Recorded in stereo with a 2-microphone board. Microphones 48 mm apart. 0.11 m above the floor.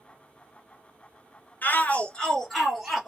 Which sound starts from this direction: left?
A shout, at 1.6 s.